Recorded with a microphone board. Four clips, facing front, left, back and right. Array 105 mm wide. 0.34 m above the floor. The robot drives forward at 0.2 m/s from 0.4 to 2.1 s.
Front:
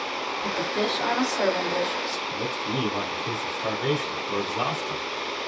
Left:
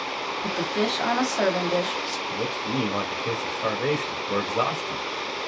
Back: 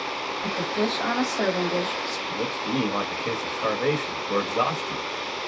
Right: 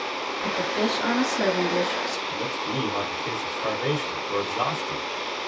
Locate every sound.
0.4 s a woman speaking: 65° left, 1.9 m; by 2.2 s 75° left, 1.8 m
2.3 s a man speaking: 145° left, 1.1 m